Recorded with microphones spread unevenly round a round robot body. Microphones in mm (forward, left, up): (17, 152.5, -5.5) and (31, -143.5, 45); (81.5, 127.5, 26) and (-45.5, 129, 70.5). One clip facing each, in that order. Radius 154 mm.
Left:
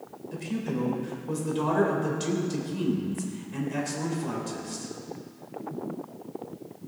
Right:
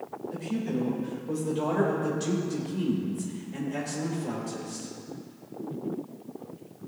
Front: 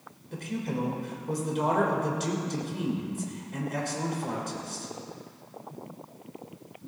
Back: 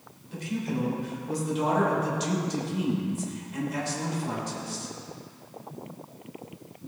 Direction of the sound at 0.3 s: 25° left.